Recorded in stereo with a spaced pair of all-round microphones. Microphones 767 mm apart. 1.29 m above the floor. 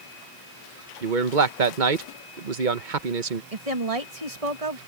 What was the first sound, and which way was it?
A man speaking, 80° right.